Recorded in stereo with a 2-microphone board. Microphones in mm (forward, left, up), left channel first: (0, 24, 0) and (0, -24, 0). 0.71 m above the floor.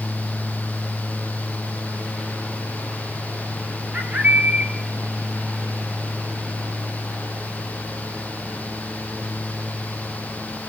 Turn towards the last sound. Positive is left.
turn(degrees=-35)  # may be behind; listen again after turning